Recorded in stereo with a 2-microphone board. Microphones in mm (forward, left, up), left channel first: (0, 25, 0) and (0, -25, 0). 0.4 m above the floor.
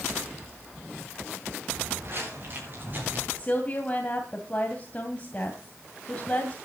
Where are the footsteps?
50° right (ahead or behind), 8.5 m; by 3.2 s 35° right (ahead or behind), 7.5 m.